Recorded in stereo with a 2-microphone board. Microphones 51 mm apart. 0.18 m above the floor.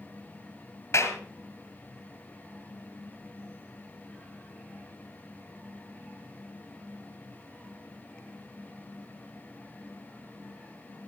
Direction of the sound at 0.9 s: 65° left (ahead or behind).